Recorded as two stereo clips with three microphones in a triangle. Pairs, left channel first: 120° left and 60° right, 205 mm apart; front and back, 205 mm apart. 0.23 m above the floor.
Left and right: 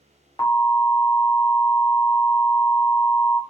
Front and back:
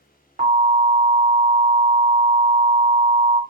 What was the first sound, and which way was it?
An alarm, 175° right.